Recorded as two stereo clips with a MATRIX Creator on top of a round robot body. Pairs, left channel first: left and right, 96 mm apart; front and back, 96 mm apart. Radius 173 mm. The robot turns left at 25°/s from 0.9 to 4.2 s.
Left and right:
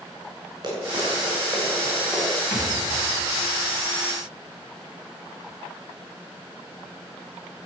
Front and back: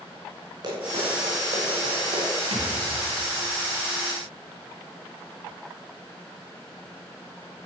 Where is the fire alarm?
I don't hear a fire alarm.